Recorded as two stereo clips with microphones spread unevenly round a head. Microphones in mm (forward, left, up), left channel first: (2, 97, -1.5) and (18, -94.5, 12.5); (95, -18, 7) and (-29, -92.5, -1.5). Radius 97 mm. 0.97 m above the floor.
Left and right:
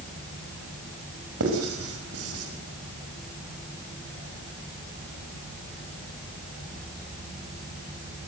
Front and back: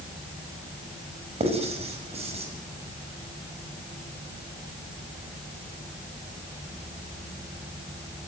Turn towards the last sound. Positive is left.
turn(degrees=-100)